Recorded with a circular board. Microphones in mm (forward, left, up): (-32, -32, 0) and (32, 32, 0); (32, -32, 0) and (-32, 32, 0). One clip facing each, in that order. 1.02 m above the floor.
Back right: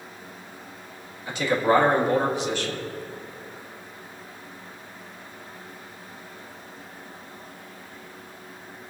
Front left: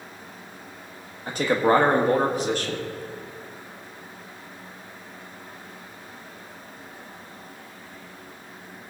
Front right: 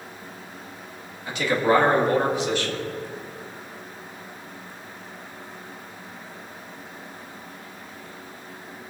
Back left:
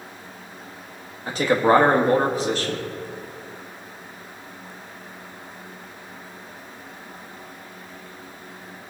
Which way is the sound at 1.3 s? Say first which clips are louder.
Front left 1 dB, back left 3 dB; 85° left.